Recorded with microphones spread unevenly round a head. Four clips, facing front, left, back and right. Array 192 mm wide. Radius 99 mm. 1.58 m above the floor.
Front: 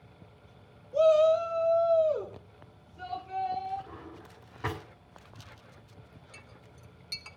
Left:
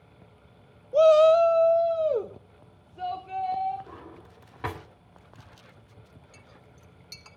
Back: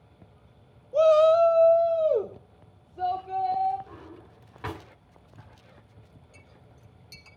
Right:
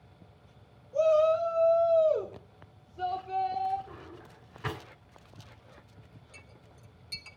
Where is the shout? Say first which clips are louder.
Left 7 dB, back 4 dB; 85° left, 0.6 m; by 3.8 s 165° left, 2.5 m.